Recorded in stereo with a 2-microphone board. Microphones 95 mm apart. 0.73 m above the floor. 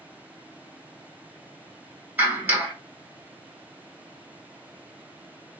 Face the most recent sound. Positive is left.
turn(degrees=-20)  # may be behind; listen again after turning